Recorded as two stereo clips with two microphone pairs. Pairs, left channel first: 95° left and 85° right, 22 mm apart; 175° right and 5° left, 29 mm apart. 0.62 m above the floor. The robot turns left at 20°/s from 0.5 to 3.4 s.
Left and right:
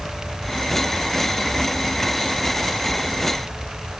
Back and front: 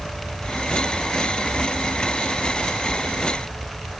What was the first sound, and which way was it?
Only background noise.